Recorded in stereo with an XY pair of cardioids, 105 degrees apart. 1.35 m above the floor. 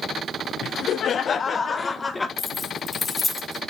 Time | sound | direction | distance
0.6 | laughter | 60° left | 1.4 m
2.4 | keys jangling | 25° left | 2.5 m